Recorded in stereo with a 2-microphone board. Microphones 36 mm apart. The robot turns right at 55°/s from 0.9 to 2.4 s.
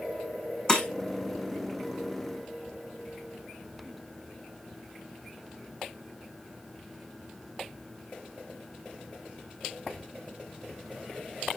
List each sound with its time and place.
0.7 s breaking glass: 25° left (ahead or behind), 1.7 m